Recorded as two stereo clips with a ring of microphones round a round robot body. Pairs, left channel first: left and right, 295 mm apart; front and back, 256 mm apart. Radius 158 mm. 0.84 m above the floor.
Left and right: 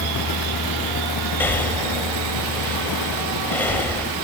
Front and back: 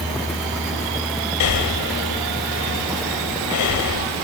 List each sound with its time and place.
1.4 s breathing: 5° left, 1.8 m